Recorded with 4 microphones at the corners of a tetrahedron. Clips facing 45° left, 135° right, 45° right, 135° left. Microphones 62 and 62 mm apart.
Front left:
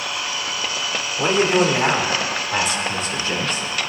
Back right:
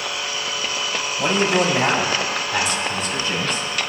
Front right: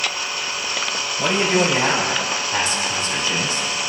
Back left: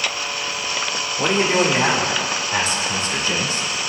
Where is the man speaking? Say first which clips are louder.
Front left 2 dB, back left 1 dB; 85° left, 3 m.